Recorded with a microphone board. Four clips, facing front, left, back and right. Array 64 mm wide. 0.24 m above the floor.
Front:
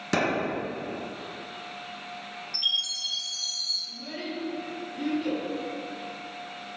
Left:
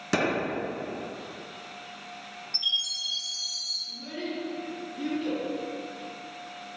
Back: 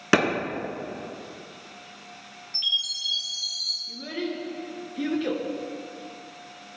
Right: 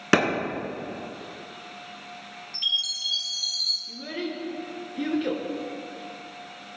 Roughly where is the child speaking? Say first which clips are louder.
Right 2 dB, back 5 dB; behind right.